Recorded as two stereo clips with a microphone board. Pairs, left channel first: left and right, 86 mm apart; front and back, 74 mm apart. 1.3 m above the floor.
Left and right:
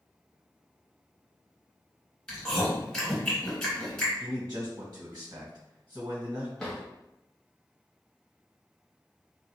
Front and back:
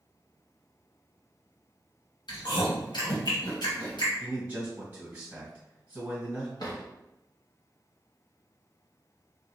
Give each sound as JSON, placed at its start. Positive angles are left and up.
{"t": 2.3, "sound": "chewing", "azimuth_deg": 5, "distance_m": 1.8}
{"t": 4.2, "sound": "a man speaking", "azimuth_deg": -115, "distance_m": 1.3}
{"t": 6.6, "sound": "a drawer", "azimuth_deg": 5, "distance_m": 1.2}